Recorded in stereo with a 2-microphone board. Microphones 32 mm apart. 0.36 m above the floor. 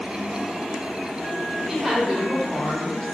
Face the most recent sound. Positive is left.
turn(degrees=30)  # may be behind; listen again after turning